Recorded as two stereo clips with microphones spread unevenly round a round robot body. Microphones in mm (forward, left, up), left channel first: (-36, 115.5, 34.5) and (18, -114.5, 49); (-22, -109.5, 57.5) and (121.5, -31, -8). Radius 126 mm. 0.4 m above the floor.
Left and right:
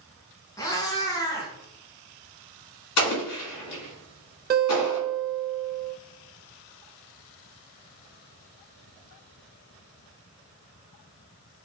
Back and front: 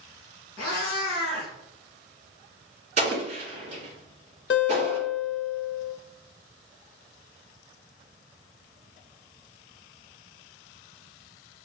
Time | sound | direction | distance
0.6 | a cat meowing | straight behind | 1.6 m
3.0 | an explosion | 85° left | 2 m
4.5 | a guitar | 130° right | 0.7 m